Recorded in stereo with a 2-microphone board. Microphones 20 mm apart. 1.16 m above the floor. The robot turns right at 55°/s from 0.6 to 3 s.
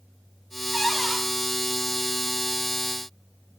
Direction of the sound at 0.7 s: Centre (ahead or behind).